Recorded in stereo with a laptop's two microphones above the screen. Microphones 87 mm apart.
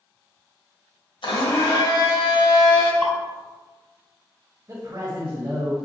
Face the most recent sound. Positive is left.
turn(degrees=-40)  # may be behind; listen again after turning